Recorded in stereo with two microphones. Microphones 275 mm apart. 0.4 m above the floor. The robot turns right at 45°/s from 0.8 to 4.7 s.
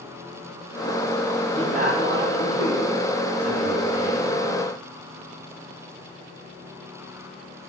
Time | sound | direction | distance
1.5 | a man speaking | 160° right | 3 m